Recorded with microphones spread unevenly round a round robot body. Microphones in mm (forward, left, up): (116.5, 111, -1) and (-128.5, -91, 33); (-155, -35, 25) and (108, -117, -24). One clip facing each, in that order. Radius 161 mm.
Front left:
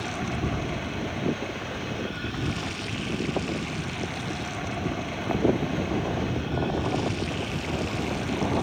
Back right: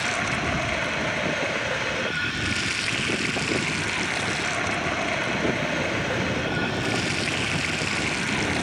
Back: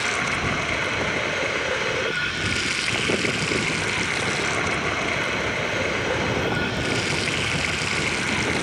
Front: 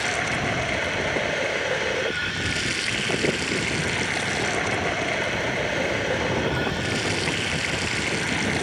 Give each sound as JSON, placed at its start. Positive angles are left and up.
{"t": 0.0, "sound": "running water", "azimuth_deg": -120}